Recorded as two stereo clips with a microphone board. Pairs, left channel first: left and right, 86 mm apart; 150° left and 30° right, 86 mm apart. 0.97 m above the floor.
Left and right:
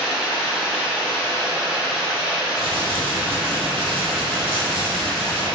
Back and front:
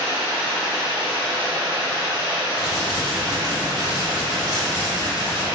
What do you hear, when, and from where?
0.0 s running water: 10° right, 1.6 m
2.6 s crumpling: 75° right, 0.7 m